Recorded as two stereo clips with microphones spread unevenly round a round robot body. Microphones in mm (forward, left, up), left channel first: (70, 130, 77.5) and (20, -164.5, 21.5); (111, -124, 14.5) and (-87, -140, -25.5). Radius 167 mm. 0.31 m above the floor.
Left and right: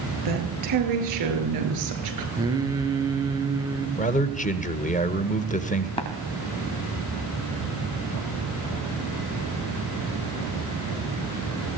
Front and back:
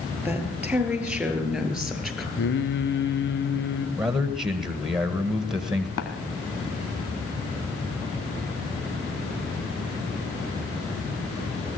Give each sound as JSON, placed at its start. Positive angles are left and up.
{"t": 0.2, "sound": "a woman speaking", "azimuth_deg": -95, "distance_m": 7.5}
{"t": 2.4, "sound": "singing", "azimuth_deg": -20, "distance_m": 3.0}
{"t": 4.0, "sound": "a man speaking", "azimuth_deg": 135, "distance_m": 1.4}
{"t": 6.0, "sound": "tapping", "azimuth_deg": 5, "distance_m": 2.5}